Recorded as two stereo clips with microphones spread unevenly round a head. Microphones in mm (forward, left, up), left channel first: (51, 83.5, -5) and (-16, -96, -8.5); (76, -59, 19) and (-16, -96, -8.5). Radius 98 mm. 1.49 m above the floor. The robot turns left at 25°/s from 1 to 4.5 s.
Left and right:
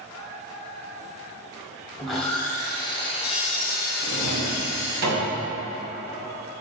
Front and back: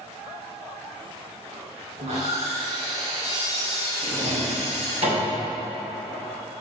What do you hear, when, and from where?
2.0 s sawing: 165° left, 1.5 m; by 5.0 s 100° left, 1.5 m
4.0 s a drawer: 130° right, 3 m; by 5.3 s 145° right, 3 m